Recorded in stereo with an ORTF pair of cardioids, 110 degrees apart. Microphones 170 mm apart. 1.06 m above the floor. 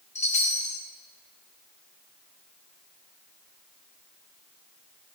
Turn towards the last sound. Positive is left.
turn(degrees=40)